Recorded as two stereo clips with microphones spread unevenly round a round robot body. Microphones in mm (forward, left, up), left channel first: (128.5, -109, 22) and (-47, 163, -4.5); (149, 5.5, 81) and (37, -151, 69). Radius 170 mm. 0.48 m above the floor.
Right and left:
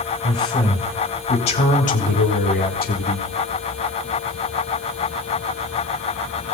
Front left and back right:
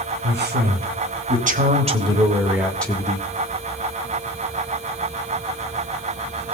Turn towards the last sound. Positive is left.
turn(degrees=-5)